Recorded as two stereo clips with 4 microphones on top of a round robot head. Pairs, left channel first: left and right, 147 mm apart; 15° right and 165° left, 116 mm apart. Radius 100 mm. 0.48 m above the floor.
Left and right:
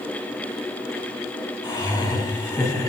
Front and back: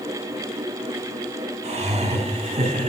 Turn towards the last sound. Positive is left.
turn(degrees=150)